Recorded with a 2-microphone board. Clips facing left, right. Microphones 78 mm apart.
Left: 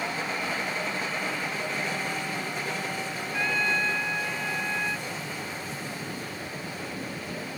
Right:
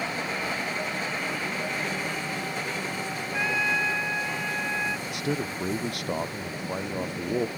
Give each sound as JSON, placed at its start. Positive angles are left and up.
{"t": 3.3, "sound": "a trumpet", "side_deg": -10}
{"t": 5.1, "sound": "a man speaking", "side_deg": -80}